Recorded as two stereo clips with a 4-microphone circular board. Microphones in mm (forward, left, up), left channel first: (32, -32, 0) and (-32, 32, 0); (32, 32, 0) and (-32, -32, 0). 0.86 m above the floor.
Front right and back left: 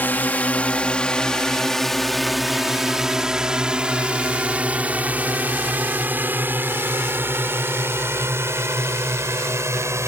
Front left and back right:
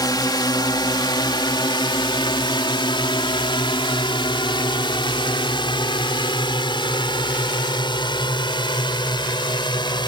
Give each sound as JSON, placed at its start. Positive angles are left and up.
{"t": 0.0, "sound": "a drone", "azimuth_deg": 20}